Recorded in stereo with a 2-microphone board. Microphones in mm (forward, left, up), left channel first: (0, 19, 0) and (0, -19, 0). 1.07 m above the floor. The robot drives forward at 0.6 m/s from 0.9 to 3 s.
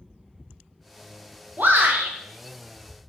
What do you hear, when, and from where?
1.6 s a shout: 55° right (ahead or behind), 0.6 m; by 2.1 s 70° right (ahead or behind), 0.6 m